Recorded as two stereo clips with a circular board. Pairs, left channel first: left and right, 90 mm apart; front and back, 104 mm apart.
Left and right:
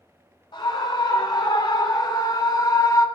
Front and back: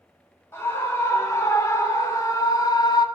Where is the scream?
65° left, 3 m; by 3.1 s 45° left, 1.5 m.